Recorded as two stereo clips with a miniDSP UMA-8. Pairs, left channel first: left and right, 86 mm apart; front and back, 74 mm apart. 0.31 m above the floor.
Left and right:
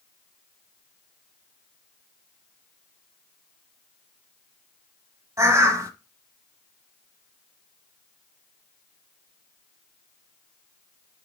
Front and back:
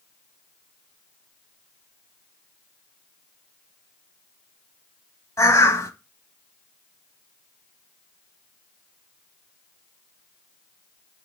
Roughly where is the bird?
Ahead right.